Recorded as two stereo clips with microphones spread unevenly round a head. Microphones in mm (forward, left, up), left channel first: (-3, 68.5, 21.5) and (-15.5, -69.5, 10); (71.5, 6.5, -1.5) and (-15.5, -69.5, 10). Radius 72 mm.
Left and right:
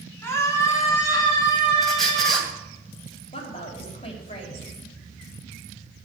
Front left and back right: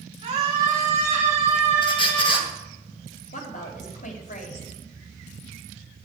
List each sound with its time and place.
0.2 s a scream: 160° left, 4 m; by 2.5 s 145° left, 6.5 m
1.8 s a squeak: straight ahead, 2.5 m
3.3 s a woman speaking: 30° left, 4 m